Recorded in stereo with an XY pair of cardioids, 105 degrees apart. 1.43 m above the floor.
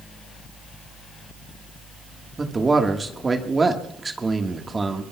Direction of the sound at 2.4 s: 20° right.